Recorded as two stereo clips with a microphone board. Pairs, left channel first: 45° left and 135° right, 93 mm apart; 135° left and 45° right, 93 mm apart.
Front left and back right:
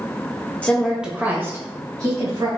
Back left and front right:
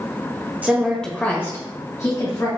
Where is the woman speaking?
5° right, 0.8 m; by 2.5 s straight behind, 2 m.